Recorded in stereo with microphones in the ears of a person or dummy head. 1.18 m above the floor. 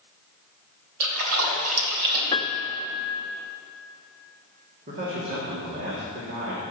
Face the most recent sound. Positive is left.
turn(degrees=-55)  # may be behind; listen again after turning